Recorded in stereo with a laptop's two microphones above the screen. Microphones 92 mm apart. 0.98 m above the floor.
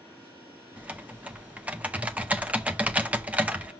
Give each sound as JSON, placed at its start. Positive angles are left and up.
{"t": 0.8, "sound": "typing on a keyboard", "side_deg": -15, "distance_m": 0.7}